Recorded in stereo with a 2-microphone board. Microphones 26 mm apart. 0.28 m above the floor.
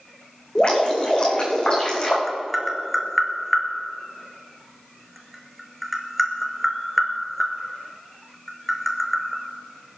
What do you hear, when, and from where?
0.6 s dripping: 35° left (ahead or behind), 3.5 m
2.3 s tapping: centre (ahead or behind), 1.3 m